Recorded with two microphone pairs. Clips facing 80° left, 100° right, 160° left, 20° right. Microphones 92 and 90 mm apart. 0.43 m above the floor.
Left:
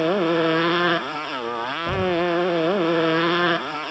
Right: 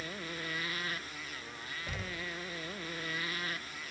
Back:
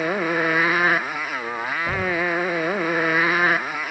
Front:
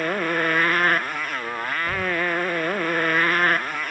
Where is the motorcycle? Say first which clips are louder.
Left 23 dB, back 1 dB; 75° left.